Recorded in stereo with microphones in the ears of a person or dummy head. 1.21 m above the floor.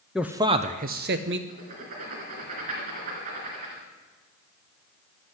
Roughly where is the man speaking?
Centre.